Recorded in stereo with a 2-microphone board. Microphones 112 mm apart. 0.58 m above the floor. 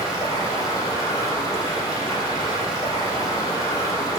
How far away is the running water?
About 5.5 m.